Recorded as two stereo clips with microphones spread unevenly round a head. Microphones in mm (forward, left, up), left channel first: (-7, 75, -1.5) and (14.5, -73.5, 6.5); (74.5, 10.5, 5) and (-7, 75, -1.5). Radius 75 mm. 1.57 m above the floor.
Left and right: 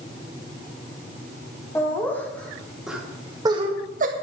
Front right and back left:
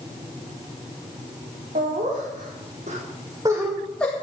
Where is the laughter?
175° left, 4 m; by 4.1 s 115° right, 1.8 m.